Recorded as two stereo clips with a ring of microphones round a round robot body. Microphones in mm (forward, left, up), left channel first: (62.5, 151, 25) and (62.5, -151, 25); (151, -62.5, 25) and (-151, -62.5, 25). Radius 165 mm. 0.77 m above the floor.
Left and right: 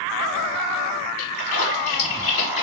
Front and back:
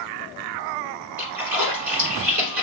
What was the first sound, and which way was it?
A splash, 145° left.